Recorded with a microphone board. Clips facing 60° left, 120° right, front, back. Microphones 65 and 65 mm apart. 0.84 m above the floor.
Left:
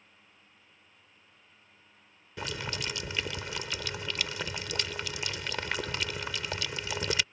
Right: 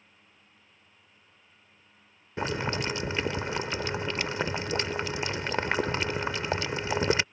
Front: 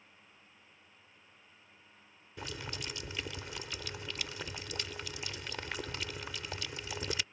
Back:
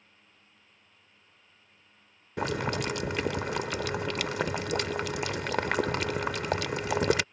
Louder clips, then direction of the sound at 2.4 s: Right 7 dB, back 13 dB; straight behind.